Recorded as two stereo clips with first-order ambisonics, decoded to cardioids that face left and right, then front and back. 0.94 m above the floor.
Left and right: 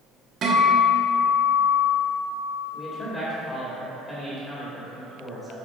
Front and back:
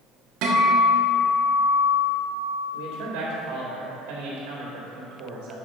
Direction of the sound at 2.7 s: 175° left.